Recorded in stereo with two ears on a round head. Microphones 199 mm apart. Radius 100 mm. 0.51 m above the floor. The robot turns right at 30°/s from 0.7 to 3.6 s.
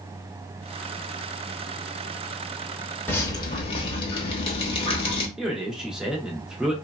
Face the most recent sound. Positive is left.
turn(degrees=-5)  # may be behind; listen again after turning